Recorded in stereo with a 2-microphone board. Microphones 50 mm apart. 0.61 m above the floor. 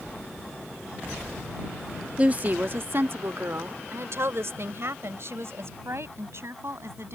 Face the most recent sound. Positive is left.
turn(degrees=-60)  # may be behind; listen again after turning